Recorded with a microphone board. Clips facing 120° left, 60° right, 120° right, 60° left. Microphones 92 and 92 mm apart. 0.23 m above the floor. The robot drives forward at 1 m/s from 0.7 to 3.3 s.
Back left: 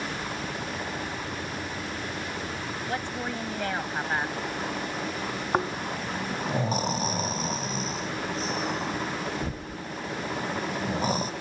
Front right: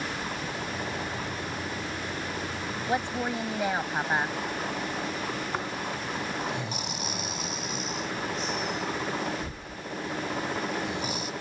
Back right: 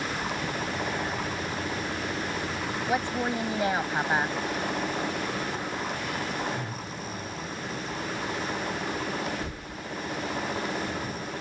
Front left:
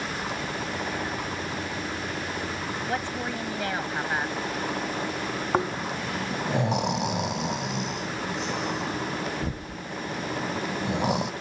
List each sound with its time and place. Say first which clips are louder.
2.9 s a woman speaking: front right 5 dB, back right 5 dB; 65° right; by 4.4 s 110° right
5.5 s snoring: back left 4 dB, front left 5 dB; 65° left